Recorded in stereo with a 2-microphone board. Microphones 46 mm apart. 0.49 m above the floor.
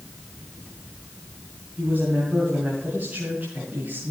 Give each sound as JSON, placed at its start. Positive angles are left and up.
{"t": 1.8, "sound": "a woman speaking", "side_deg": -35, "distance_m": 2.5}